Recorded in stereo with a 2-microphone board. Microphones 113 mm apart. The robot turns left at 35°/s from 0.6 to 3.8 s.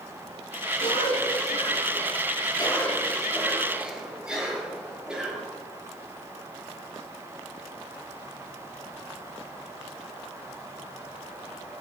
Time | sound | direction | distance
0.8 | a cough | 95° left | 6 m